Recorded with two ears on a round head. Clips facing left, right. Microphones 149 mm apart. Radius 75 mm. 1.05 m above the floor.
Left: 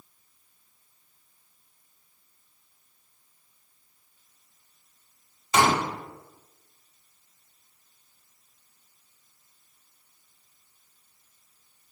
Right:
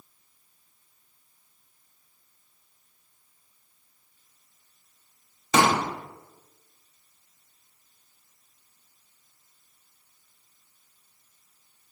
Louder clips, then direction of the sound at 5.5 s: Right 1 dB; 65° right (ahead or behind).